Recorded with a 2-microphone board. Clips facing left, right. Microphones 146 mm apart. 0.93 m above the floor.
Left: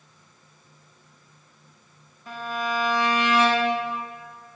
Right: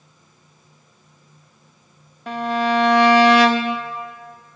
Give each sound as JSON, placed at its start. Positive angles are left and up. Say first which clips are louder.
{"t": 2.3, "sound": "a violin", "louder": "right 9 dB", "side_deg": -75, "distance_m": 0.6}